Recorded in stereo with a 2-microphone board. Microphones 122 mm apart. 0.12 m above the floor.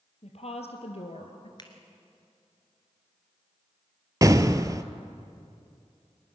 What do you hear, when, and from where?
0.2 s a woman speaking: 60° left (ahead or behind), 3 m; by 1.5 s 50° left (ahead or behind), 1.9 m
1.6 s a finger snap: 40° left (ahead or behind), 2 m
4.2 s an explosion: 30° right (ahead or behind), 0.7 m